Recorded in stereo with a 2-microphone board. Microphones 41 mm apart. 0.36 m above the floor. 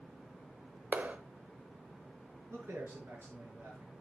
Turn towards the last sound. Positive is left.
turn(degrees=-70)  # may be behind; listen again after turning